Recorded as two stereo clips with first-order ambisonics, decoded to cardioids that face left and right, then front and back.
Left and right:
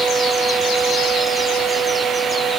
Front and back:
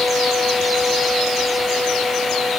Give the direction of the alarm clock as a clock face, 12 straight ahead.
I don't hear an alarm clock.